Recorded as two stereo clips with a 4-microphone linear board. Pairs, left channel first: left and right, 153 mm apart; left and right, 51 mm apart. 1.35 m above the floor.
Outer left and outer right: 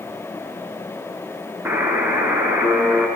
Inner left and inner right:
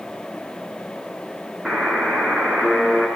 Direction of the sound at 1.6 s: 15° right (ahead or behind).